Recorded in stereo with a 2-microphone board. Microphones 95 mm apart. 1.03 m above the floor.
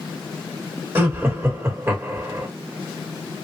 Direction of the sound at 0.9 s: 25° right (ahead or behind).